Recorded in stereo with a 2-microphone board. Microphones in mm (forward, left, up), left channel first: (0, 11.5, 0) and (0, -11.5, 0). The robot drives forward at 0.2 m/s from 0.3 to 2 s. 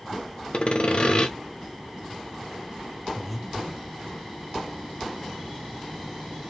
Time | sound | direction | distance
0.5 | sawing | 50° left (ahead or behind) | 0.5 m
3.1 | breathing | 5° left (ahead or behind) | 0.8 m